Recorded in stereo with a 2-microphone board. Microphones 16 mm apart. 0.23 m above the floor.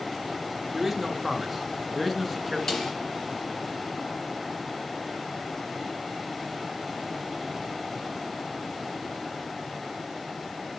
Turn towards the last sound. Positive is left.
turn(degrees=45)  # may be behind; listen again after turning